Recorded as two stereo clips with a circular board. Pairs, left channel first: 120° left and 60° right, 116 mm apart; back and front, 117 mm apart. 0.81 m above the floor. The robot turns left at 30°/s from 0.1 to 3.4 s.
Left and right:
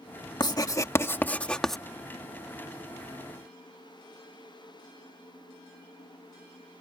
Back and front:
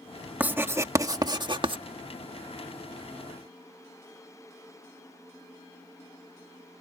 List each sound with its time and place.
0.4 s writing: 75° left; by 1.8 s 30° left